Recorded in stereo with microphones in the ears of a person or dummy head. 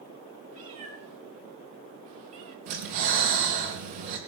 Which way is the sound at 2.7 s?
50° right (ahead or behind).